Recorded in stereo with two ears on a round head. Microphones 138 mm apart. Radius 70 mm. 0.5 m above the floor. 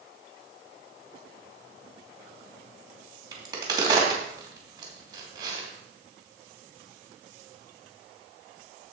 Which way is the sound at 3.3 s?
25° right (ahead or behind).